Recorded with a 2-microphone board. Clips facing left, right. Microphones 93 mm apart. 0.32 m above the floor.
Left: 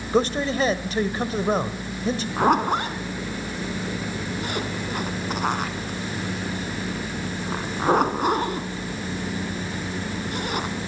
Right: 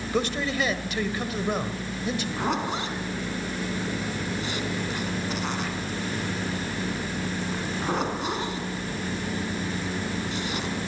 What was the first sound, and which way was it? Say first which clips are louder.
A man speaking: left 5 dB; 35° left (ahead or behind).